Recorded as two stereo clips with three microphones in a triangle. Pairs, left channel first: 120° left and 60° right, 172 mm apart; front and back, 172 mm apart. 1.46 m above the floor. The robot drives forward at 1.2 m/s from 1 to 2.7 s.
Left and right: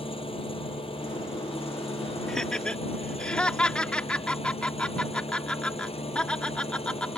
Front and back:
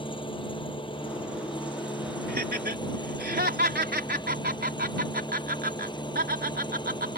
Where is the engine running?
60° left; by 7.2 s 65° left.